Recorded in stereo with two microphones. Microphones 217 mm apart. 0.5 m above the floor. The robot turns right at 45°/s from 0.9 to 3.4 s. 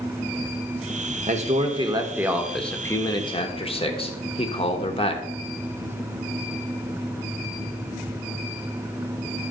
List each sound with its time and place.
1.3 s a man speaking: 55° right, 1.1 m; by 5.2 s 40° left, 1.1 m